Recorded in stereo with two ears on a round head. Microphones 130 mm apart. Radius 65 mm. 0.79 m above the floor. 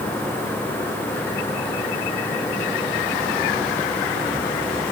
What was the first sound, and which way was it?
Only background noise.